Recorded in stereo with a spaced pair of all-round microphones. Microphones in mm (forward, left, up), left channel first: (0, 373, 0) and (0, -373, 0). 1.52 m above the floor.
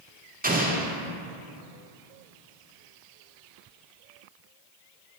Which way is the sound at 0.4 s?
10° right (ahead or behind).